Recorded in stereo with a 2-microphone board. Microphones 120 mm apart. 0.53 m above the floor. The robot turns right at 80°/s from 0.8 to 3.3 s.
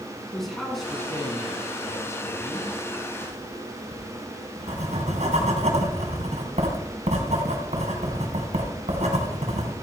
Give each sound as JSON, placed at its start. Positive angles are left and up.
{"t": 0.3, "sound": "a man speaking", "azimuth_deg": 5, "distance_m": 5.0}
{"t": 3.2, "sound": "writing", "side_deg": -75, "distance_m": 3.0}